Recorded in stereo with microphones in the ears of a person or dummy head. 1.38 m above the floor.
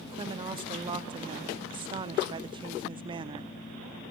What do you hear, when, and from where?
0.1 s a woman speaking: 30° right (ahead or behind), 0.5 m